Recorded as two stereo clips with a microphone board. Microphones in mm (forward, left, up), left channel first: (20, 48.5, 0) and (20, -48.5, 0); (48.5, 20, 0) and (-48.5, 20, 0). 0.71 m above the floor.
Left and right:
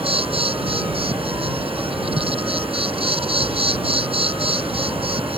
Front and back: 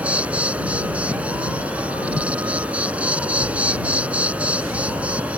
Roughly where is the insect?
Right.